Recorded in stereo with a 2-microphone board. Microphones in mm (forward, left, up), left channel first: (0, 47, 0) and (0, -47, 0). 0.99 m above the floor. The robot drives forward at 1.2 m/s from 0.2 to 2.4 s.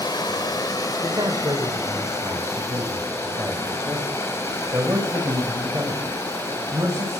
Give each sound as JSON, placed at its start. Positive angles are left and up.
{"t": 0.0, "sound": "running water", "side_deg": 45, "distance_m": 4.5}
{"t": 1.0, "sound": "a man speaking", "side_deg": -50, "distance_m": 3.0}